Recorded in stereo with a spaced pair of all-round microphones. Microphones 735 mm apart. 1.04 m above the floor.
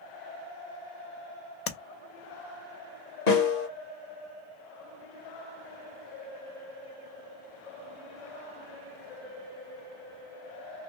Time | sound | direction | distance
1.7 | tapping | 55° left (ahead or behind) | 0.6 m
3.3 | a snare drum | 65° left (ahead or behind) | 1.2 m